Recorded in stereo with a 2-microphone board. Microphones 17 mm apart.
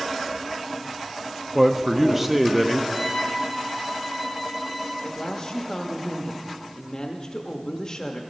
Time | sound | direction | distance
1.6 | a man speaking | 10° right (ahead or behind) | 0.5 m
2.9 | a violin | 15° right (ahead or behind) | 1.7 m
5.0 | a woman speaking | 35° left (ahead or behind) | 0.9 m